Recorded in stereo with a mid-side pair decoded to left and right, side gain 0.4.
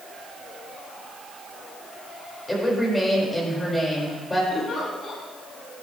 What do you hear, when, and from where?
2.5 s a woman speaking: 15° left, 5 m
4.5 s a giggle: 60° left, 3 m